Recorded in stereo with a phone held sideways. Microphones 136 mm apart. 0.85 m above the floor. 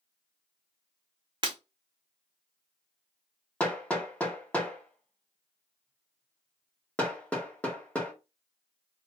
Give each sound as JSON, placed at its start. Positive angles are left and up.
{"t": 1.4, "sound": "breaking glass", "side_deg": -35, "distance_m": 0.8}
{"t": 3.6, "sound": "hammering", "side_deg": 10, "distance_m": 0.8}